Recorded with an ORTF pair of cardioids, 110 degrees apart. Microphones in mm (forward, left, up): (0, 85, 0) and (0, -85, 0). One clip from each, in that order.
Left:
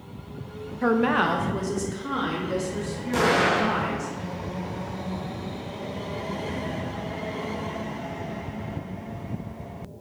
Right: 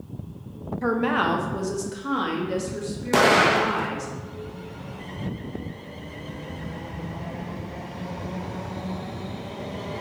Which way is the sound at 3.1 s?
50° right.